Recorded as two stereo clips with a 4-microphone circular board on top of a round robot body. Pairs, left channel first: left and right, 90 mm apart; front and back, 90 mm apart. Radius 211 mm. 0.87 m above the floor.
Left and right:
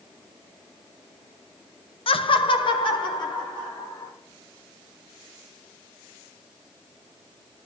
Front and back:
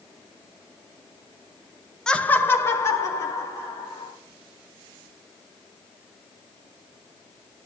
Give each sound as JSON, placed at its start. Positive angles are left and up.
{"t": 2.1, "sound": "laughter", "azimuth_deg": 85, "distance_m": 0.7}